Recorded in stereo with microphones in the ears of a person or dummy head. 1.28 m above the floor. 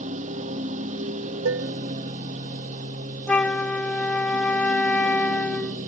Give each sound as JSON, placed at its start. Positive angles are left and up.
{"t": 0.0, "sound": "a lawn mower", "side_deg": -40}
{"t": 1.4, "sound": "dishes clattering", "side_deg": -80}
{"t": 3.3, "sound": "a flute", "side_deg": 5}